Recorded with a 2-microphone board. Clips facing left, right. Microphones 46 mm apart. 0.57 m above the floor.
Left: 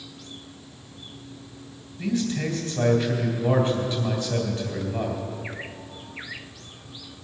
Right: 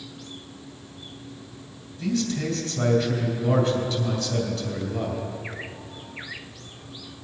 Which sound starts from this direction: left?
A man speaking, at 2.0 s.